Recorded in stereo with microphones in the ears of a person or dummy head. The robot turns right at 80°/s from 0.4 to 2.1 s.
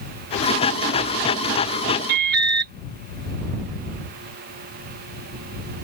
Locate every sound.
2.1 s an alarm: 60° right (ahead or behind)